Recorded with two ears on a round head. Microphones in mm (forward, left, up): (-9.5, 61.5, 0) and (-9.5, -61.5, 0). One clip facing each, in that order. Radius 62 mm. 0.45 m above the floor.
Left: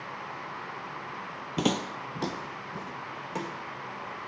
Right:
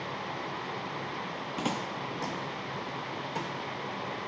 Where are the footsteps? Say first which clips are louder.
Left 6 dB; 40° left (ahead or behind), 0.5 m; by 4.2 s 20° left (ahead or behind), 2 m.